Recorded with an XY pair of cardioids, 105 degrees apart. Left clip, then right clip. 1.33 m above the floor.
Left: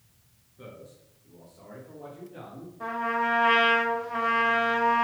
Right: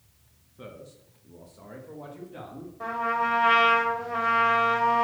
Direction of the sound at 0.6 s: 30° right.